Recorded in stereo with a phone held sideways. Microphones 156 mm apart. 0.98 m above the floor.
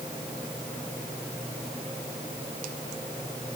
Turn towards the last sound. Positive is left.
No sound to turn to.